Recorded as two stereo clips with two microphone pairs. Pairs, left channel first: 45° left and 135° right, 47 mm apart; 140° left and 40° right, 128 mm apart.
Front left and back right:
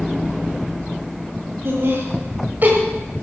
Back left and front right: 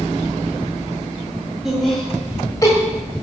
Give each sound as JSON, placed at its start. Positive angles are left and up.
{"t": 1.6, "sound": "laughter", "azimuth_deg": -125, "distance_m": 2.5}